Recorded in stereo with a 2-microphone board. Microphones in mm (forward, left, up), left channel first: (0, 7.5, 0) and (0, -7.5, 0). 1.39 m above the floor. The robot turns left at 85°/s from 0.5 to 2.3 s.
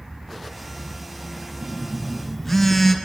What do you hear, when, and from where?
1.6 s a phone buzzing: 135° right, 2 m; by 3.0 s 170° left, 2 m